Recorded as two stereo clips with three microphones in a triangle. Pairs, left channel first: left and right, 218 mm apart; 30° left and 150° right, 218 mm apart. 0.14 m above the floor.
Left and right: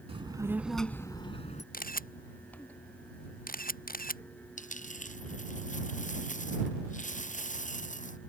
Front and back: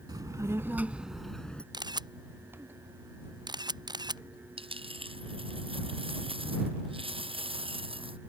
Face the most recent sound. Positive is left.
turn(degrees=145)